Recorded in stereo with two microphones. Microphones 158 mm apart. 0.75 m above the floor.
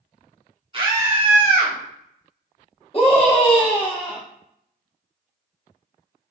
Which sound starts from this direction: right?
A scream, at 0.7 s.